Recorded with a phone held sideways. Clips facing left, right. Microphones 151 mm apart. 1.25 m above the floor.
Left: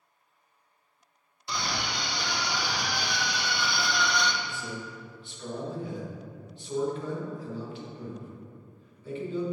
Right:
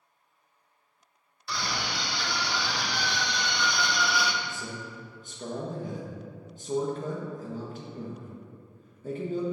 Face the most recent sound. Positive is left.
turn(degrees=-45)  # may be behind; listen again after turning